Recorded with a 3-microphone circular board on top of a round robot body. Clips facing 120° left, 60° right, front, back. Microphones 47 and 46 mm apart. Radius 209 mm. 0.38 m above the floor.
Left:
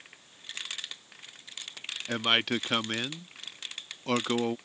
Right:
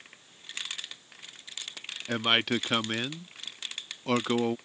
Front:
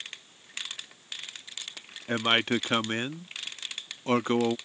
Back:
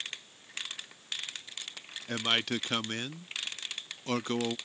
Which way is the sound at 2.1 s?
25° left.